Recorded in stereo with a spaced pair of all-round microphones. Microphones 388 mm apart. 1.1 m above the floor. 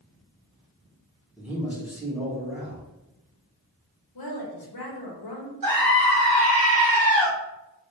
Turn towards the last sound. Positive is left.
turn(degrees=-60)  # may be behind; listen again after turning